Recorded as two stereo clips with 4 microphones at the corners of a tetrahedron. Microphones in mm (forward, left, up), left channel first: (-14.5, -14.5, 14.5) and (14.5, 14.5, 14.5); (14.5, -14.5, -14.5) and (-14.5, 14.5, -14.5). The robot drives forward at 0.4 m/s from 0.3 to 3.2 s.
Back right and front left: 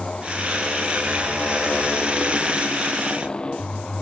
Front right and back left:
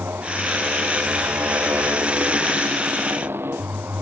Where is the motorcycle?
155° left; by 4.0 s 160° left.